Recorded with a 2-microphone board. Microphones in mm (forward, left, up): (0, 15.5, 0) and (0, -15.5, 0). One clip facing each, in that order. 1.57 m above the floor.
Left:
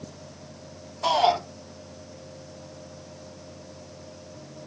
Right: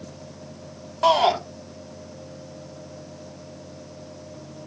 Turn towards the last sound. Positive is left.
turn(degrees=-75)  # may be behind; listen again after turning